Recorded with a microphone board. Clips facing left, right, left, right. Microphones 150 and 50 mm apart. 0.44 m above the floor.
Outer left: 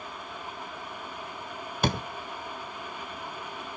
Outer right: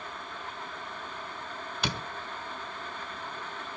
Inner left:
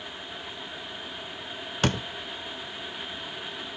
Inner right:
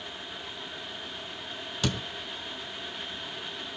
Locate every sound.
1.8 s a door slam: 50° left (ahead or behind), 1.0 m